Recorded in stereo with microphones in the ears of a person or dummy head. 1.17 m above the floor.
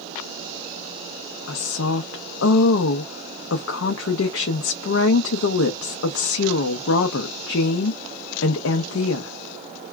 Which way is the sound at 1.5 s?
70° left (ahead or behind).